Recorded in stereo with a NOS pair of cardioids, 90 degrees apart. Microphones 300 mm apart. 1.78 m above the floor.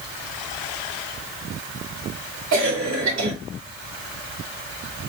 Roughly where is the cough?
Ahead right.